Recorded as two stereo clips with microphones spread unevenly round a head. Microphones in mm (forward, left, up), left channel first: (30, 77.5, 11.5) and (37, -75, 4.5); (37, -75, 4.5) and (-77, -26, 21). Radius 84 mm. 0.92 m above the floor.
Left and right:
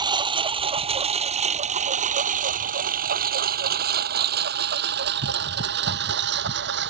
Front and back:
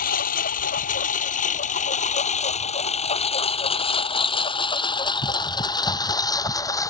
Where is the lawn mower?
25° right; by 6.9 s 85° right.